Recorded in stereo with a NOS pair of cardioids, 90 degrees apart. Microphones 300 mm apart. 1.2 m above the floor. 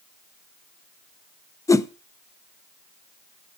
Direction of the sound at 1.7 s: 10° left.